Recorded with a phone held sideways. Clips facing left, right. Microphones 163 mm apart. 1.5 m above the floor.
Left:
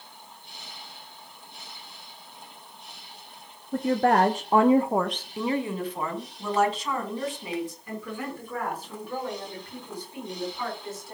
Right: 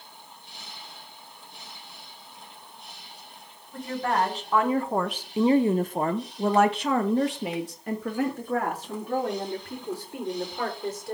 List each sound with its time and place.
3.7 s a woman speaking: 65° left (ahead or behind), 1.3 m; by 11.2 s 80° right, 5.5 m